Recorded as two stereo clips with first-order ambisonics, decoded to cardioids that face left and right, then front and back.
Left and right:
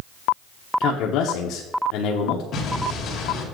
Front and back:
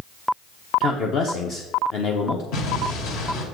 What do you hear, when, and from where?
0.8 s a man speaking: 55° left, 1.0 m
2.5 s an explosion: 35° left, 2 m